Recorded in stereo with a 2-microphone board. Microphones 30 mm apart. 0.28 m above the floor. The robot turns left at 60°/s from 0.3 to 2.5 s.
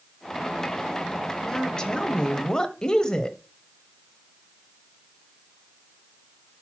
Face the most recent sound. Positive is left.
turn(degrees=25)  # may be behind; listen again after turning